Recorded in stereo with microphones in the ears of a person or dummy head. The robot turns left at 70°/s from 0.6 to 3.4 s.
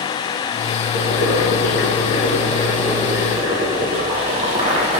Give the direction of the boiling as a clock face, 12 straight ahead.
8 o'clock.